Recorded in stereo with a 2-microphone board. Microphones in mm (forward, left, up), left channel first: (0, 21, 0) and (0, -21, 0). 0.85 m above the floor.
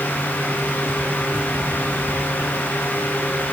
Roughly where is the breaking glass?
I don't hear breaking glass.